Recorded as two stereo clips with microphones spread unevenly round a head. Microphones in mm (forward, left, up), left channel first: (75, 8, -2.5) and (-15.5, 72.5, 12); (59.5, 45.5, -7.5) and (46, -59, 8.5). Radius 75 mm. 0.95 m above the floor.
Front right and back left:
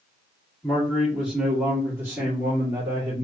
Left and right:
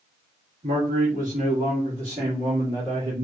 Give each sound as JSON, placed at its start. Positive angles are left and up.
{"t": 0.6, "sound": "a man speaking", "azimuth_deg": -115, "distance_m": 1.7}